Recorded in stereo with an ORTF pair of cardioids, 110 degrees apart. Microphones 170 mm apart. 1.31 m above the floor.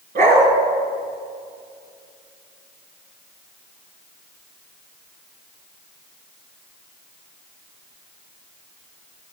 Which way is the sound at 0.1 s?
60° right.